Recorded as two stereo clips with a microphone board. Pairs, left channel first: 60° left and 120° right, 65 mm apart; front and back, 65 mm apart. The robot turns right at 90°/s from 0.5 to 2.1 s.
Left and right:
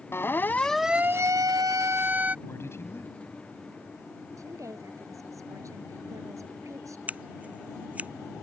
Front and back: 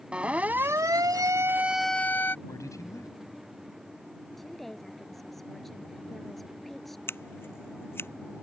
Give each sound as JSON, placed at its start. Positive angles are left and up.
{"t": 0.1, "sound": "a siren", "azimuth_deg": 110}
{"t": 2.5, "sound": "a man speaking", "azimuth_deg": 15}
{"t": 4.4, "sound": "a woman speaking", "azimuth_deg": -85}
{"t": 7.1, "sound": "scissors", "azimuth_deg": -50}